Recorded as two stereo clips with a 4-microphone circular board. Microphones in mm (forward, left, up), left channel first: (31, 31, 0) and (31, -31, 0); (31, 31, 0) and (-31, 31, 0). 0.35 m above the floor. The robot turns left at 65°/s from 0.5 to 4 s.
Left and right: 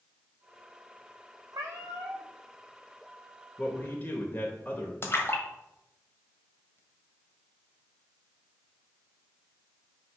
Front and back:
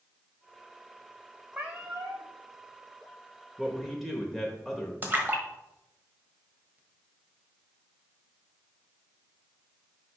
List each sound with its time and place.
1.5 s a cat meowing: 105° right, 1.6 m; by 2.3 s 150° right, 1.6 m
3.6 s a man speaking: 120° left, 1.0 m; by 4.9 s 90° left, 1.0 m
5.0 s a splash: 125° left, 1.2 m